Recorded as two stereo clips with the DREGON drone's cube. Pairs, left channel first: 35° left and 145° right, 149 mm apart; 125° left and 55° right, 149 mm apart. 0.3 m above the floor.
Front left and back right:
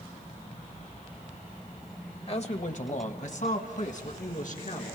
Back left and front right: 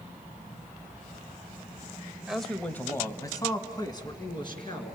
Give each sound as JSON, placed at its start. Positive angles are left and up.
{"t": 2.3, "sound": "a man speaking", "azimuth_deg": 25, "distance_m": 1.1}